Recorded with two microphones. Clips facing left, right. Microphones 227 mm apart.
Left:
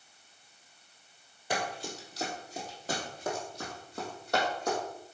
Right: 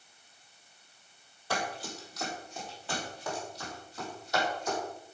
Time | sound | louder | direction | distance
1.5 | running footsteps | left 1 dB | 15° left (ahead or behind) | 2.5 m